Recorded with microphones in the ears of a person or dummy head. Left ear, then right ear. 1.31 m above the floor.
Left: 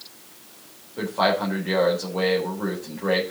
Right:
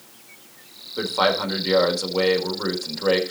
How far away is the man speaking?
About 4 m.